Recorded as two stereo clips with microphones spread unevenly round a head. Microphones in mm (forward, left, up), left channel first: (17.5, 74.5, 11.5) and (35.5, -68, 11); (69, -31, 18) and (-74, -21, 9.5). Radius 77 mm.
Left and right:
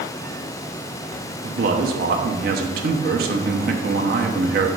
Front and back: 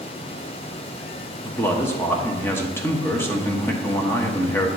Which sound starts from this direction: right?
A man speaking, at 1.4 s.